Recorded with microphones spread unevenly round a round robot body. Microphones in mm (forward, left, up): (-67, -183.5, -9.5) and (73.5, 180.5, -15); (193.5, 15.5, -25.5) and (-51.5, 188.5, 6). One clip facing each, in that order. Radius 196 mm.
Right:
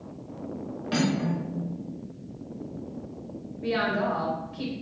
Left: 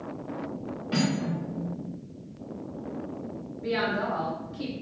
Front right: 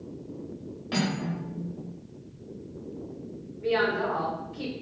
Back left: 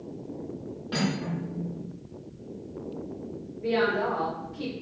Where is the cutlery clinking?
65° right, 1.0 m.